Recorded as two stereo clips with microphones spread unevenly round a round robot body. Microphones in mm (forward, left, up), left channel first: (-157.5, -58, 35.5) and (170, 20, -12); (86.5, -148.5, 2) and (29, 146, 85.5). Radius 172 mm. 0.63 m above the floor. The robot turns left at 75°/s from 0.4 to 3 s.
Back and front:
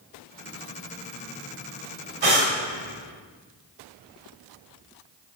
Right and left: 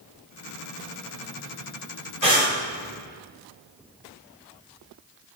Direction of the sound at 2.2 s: 30° left.